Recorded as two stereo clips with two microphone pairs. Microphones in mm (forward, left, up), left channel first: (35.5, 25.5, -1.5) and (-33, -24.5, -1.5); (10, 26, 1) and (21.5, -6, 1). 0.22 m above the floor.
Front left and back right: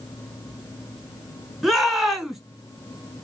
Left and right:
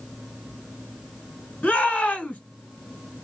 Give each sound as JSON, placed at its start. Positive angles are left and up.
{"t": 1.6, "sound": "a shout", "azimuth_deg": 130, "distance_m": 2.0}